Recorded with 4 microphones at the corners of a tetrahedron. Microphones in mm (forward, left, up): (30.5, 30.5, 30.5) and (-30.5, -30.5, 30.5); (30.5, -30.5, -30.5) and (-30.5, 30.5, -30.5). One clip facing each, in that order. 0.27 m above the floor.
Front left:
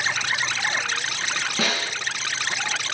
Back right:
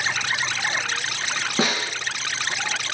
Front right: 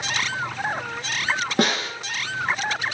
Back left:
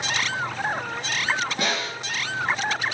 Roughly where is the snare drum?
Right.